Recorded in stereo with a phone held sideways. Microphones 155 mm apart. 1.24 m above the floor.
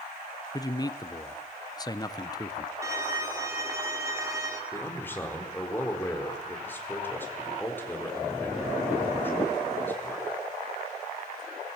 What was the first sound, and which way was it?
A man speaking, 25° left (ahead or behind).